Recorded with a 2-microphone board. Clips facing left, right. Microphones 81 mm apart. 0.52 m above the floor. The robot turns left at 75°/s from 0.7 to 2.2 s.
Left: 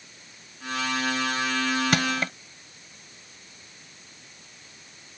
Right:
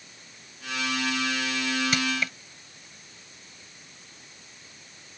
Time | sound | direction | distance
1.9 | crushing | 65° left (ahead or behind) | ?